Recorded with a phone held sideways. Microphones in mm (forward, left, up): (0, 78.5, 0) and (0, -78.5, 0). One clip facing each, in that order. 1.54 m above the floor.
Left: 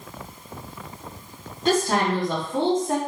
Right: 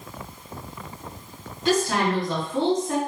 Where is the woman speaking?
55° left (ahead or behind), 2.5 m.